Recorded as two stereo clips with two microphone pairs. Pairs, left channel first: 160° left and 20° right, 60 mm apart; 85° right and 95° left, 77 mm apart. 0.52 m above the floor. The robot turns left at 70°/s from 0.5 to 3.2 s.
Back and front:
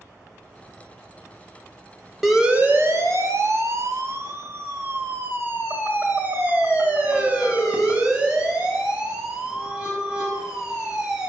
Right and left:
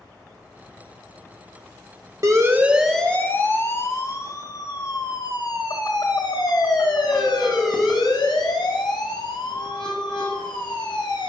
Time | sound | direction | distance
2.2 | a siren | 70° left | 3 m